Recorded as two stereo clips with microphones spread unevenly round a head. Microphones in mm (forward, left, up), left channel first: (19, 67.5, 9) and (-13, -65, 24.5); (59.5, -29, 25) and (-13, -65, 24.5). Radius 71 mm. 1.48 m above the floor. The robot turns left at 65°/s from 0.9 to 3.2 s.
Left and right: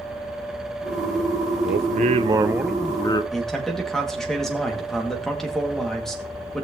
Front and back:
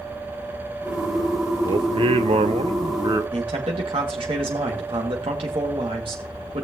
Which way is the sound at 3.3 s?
165° left.